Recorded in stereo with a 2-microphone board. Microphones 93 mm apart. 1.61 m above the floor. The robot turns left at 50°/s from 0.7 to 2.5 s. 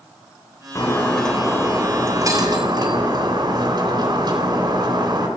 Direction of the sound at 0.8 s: 35° left.